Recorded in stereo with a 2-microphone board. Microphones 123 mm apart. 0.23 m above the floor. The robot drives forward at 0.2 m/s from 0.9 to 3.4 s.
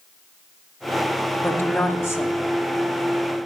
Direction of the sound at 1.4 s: 20° left (ahead or behind).